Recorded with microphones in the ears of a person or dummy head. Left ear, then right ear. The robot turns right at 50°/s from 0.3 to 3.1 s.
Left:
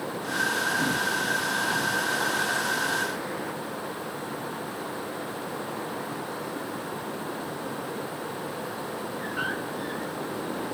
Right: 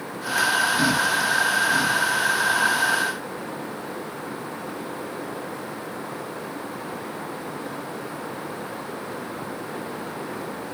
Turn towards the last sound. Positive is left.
No sound to turn to.